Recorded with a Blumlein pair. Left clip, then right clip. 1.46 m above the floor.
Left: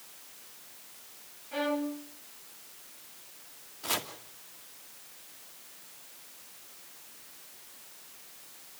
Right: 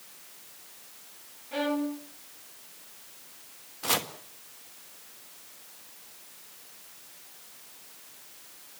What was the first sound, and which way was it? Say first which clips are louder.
A violin: right 2 dB; 20° right.